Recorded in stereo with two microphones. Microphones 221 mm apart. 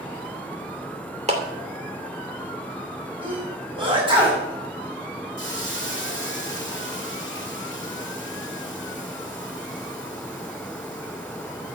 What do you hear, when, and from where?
1.3 s a clap: 30° right (ahead or behind), 2.5 m
3.2 s a sneeze: 20° right (ahead or behind), 6.5 m
5.4 s a hiss: 60° left (ahead or behind), 2.0 m